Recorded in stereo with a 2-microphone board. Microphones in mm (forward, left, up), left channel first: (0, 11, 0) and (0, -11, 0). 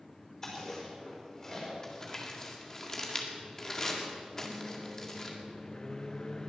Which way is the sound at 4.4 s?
30° left (ahead or behind).